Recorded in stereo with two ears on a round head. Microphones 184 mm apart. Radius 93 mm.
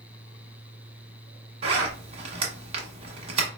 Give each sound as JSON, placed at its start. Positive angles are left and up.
{"t": 1.6, "sound": "a zipper", "side_deg": -30, "distance_m": 1.1}